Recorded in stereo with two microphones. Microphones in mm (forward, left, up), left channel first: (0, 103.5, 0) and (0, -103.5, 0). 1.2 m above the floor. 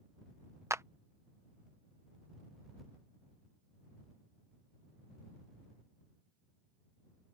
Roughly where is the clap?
Centre.